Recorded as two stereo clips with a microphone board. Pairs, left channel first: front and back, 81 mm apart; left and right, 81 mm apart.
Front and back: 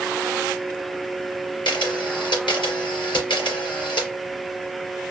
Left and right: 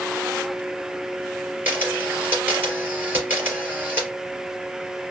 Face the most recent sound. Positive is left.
turn(degrees=-20)